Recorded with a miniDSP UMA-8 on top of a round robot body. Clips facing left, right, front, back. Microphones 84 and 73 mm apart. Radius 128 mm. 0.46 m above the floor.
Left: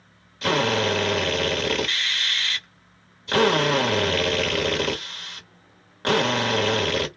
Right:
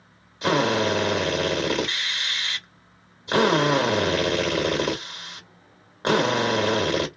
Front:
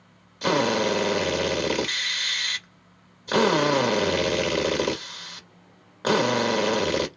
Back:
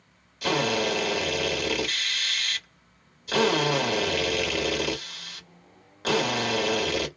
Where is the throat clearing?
No throat clearing in this recording.